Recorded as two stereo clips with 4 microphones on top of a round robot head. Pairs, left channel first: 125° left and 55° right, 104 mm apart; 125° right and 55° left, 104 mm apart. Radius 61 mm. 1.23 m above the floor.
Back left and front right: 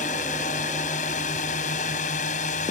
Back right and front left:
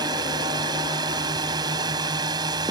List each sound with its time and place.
0.0 s a drone: 110° left